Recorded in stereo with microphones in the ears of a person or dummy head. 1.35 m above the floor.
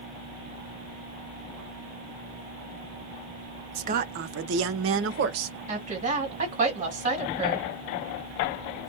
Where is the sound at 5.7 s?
35° right (ahead or behind), 1.5 m.